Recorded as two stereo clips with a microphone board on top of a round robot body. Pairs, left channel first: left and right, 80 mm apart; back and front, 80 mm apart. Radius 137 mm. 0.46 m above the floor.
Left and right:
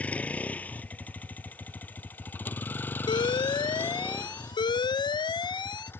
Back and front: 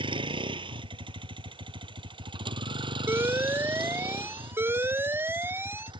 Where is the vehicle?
15° left; by 6.0 s 25° left.